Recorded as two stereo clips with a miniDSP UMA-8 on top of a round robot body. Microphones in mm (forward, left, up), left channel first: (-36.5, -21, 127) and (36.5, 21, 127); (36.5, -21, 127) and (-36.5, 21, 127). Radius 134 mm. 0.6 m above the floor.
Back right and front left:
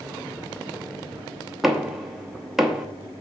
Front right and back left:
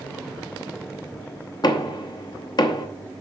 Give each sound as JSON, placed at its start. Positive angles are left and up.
{"t": 1.6, "sound": "knocking", "azimuth_deg": -55, "distance_m": 1.2}